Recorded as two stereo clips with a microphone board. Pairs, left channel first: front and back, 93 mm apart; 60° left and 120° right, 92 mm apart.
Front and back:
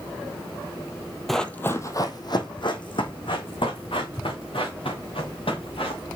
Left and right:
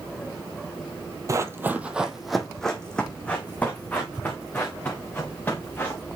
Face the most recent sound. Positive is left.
turn(degrees=-10)